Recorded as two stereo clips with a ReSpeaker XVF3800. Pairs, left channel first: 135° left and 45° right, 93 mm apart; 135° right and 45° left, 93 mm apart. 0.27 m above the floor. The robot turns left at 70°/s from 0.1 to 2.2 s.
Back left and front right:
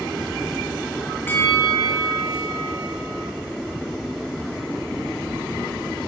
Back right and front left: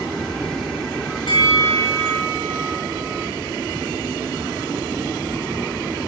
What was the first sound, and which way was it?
A bell, 155° right.